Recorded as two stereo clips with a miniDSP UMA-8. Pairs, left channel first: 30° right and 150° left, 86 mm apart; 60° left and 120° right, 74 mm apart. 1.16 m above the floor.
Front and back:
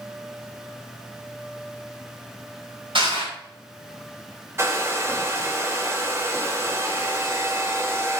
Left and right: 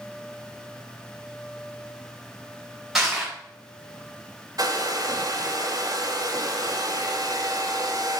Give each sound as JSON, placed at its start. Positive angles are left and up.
{"t": 3.0, "sound": "crushing", "azimuth_deg": 155, "distance_m": 5.0}
{"t": 4.6, "sound": "a hair dryer", "azimuth_deg": -150, "distance_m": 1.3}